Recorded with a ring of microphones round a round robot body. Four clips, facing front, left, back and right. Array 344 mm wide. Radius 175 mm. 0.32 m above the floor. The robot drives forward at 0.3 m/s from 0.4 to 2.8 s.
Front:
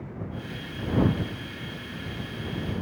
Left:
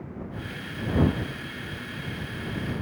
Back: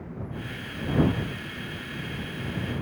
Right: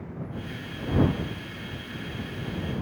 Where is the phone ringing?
I don't hear a phone ringing.